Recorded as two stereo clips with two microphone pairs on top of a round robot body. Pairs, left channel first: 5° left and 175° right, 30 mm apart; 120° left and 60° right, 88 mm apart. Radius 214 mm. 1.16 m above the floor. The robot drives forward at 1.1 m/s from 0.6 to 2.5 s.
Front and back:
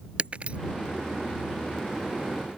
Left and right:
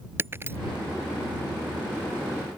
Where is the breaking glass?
130° right.